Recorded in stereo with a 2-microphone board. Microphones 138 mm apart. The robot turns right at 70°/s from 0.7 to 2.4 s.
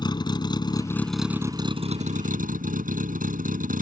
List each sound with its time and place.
0.0 s a vehicle: 145° left; by 3.8 s 95° right